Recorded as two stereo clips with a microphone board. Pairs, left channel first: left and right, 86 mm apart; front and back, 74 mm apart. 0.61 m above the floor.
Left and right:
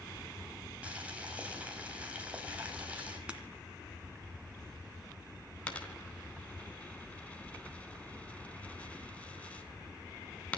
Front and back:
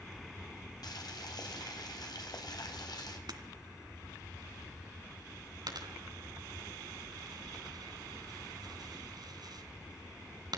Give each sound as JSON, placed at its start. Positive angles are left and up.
{"t": 0.8, "sound": "boiling", "azimuth_deg": -15, "distance_m": 4.0}
{"t": 3.3, "sound": "breaking glass", "azimuth_deg": -165, "distance_m": 2.0}
{"t": 5.7, "sound": "a dropped coin", "azimuth_deg": 165, "distance_m": 3.0}